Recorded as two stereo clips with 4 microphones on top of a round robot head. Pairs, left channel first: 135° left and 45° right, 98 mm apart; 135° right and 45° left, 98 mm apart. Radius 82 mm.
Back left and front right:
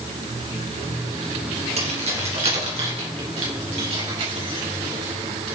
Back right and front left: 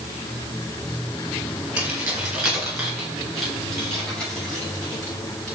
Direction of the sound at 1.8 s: 30° right.